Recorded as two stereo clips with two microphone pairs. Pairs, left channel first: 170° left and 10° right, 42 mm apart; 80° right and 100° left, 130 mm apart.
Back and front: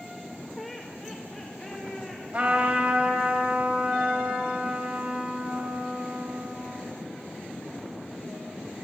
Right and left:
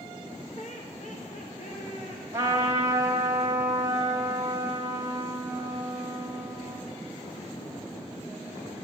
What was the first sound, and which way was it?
Laughter, 100° right.